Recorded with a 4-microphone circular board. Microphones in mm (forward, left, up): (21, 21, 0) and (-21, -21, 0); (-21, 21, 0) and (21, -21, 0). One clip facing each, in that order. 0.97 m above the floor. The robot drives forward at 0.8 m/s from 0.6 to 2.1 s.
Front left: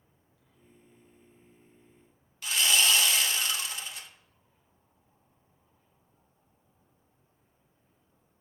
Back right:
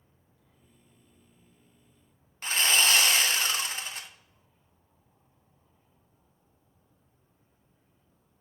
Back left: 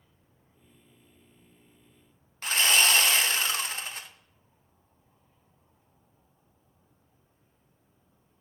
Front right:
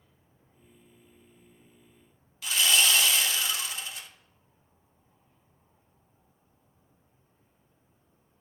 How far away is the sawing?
About 0.7 m.